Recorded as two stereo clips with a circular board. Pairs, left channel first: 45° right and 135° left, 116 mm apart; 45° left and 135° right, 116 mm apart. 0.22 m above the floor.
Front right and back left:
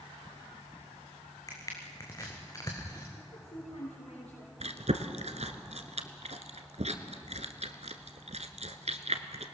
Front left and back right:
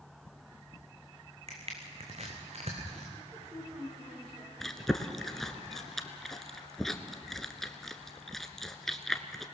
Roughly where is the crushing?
Right.